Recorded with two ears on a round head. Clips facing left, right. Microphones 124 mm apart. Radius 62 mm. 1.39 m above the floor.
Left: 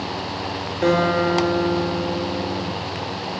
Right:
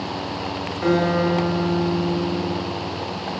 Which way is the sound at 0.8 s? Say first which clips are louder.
Left 1 dB; 45° left (ahead or behind).